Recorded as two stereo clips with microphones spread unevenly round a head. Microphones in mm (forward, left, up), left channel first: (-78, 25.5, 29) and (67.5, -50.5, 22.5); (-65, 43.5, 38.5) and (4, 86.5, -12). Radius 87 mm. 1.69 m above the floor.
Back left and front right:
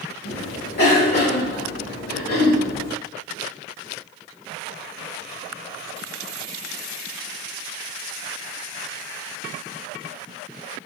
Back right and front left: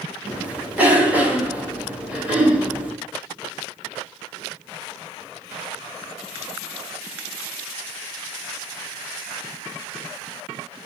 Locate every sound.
0.2 s a cough: 115° left, 1.0 m